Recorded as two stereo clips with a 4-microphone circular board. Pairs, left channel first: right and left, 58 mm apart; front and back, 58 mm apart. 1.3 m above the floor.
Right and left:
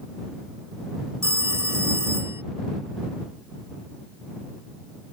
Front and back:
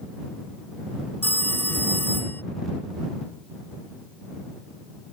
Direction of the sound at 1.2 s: 50° left.